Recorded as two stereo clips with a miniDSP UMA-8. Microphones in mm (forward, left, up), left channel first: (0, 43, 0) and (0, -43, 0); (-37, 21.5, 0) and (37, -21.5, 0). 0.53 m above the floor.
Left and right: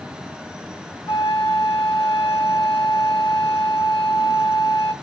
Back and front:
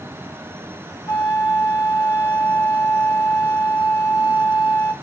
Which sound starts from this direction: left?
A flute, at 1.1 s.